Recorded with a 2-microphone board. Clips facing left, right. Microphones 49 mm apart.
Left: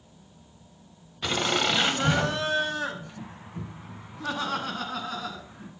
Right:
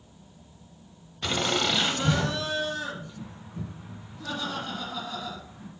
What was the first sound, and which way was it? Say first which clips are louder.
Laughter: left 1 dB; 5° left (ahead or behind).